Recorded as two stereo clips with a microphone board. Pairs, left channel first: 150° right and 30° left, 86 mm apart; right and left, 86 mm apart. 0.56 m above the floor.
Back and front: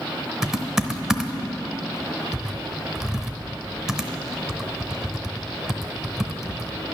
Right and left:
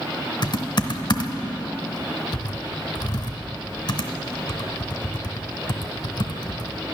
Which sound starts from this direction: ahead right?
Typing on a keyboard, at 0.4 s.